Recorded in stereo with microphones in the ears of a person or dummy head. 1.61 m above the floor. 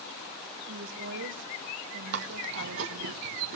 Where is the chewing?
55° right (ahead or behind), 1.1 m.